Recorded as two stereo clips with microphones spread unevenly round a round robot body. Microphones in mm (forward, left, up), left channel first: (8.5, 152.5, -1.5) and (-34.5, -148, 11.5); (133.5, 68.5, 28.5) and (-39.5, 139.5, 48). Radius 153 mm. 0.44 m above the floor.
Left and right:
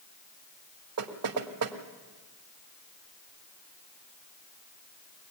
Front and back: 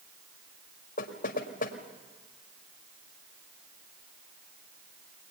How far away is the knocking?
About 1.9 m.